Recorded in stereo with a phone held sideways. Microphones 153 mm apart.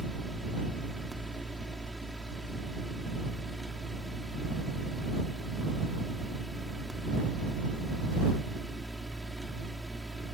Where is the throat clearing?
No throat clearing in this recording.